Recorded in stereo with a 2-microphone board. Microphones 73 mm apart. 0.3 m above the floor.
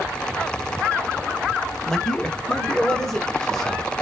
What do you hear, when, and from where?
1.9 s a man speaking: 10° left (ahead or behind), 0.9 m; by 3.9 s 5° left (ahead or behind), 1.6 m